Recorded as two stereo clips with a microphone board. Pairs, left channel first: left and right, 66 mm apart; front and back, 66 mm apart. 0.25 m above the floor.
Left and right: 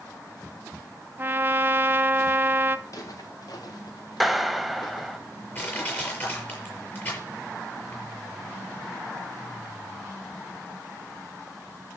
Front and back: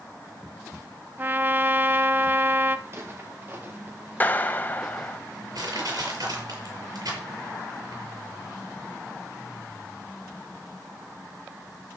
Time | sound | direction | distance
1.2 | a trumpet | 135° right | 0.9 m
2.9 | footsteps | 125° left | 3.5 m
4.2 | a clap | straight ahead | 0.9 m
5.5 | crushing | 155° left | 6 m